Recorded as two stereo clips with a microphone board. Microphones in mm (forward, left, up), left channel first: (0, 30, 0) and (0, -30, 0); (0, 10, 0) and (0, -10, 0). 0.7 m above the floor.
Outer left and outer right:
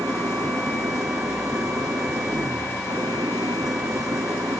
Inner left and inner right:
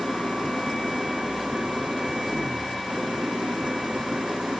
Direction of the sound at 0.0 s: 75° right (ahead or behind).